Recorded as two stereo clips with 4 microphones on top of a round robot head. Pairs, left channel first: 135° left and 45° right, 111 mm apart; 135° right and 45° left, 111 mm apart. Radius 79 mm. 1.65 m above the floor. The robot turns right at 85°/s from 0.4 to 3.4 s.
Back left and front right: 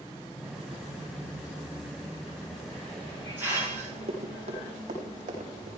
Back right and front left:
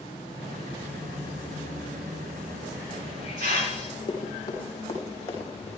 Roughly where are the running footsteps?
Right.